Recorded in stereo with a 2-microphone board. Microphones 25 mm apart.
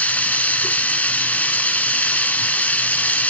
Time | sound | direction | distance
0.0 | running water | 80° left | 1.2 m